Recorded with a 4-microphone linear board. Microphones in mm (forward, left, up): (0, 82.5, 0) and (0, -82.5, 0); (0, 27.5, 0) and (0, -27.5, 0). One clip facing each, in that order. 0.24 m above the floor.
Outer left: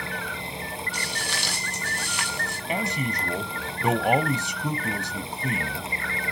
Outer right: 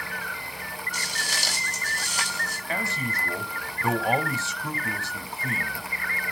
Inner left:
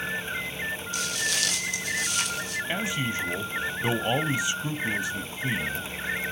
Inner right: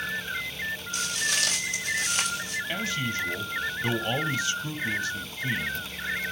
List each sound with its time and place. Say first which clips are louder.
0.9 s footsteps: outer left 3 dB, inner right 1 dB; 40° right (ahead or behind), 8.5 m; by 2.6 s 35° right (ahead or behind), 7 m
2.7 s a man speaking: outer left 3 dB, inner left 2 dB; 15° left (ahead or behind), 1.0 m